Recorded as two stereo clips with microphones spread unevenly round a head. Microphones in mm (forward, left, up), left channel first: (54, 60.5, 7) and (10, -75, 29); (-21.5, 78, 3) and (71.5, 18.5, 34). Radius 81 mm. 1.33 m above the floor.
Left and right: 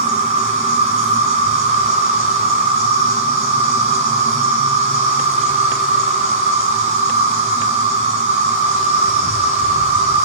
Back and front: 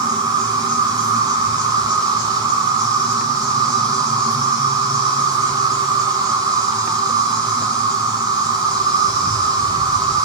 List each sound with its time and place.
0.0 s an insect: 90° right, 1.3 m